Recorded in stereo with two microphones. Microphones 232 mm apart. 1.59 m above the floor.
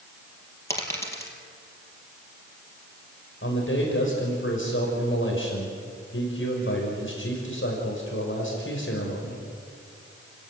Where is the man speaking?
60° left (ahead or behind), 5.5 m.